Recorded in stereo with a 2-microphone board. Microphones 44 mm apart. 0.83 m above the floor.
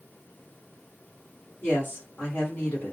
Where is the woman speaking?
40° left (ahead or behind), 2.0 m.